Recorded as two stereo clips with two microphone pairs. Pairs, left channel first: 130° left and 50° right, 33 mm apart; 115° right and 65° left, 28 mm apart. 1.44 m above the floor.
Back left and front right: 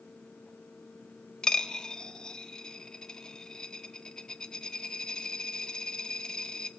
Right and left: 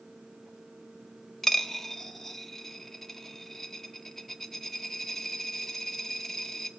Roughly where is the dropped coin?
Behind.